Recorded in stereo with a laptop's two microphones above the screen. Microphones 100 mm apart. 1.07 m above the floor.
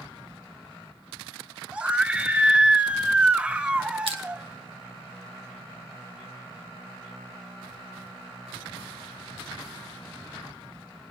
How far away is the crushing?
About 1.4 m.